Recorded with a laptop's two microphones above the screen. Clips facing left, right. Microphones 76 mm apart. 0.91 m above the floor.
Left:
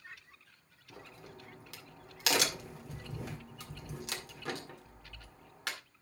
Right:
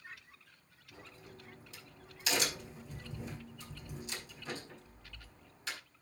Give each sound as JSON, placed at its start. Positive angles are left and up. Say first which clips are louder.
{"t": 0.9, "sound": "a crack", "louder": "left 3 dB", "side_deg": 75, "distance_m": 1.9}